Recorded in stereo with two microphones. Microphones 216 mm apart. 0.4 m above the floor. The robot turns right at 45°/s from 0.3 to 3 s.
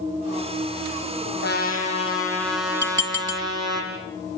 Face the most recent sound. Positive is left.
turn(degrees=-65)  # may be behind; listen again after turning